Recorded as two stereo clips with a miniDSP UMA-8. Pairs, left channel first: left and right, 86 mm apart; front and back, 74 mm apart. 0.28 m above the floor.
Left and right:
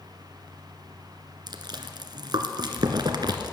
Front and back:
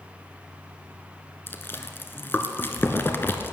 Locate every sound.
1.5 s chewing: 60° right, 1.1 m